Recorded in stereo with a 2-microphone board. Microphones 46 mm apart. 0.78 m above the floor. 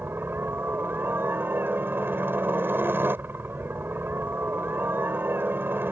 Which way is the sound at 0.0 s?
55° right (ahead or behind).